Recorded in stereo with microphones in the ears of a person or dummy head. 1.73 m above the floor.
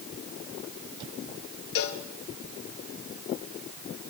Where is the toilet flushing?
No toilet flushing in this recording.